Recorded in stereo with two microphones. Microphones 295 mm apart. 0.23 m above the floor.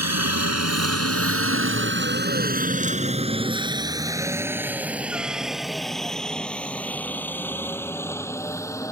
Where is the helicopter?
60° right (ahead or behind); by 8.9 s 10° left (ahead or behind).